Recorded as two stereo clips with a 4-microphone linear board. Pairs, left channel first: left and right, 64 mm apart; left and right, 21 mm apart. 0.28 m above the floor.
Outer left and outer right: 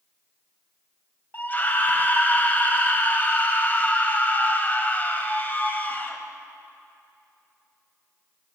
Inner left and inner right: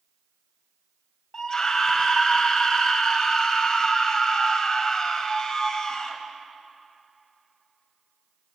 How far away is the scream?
About 1.3 m.